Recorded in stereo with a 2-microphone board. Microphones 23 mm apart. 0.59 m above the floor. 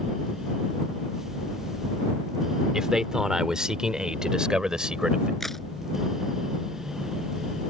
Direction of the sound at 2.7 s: 30° right (ahead or behind).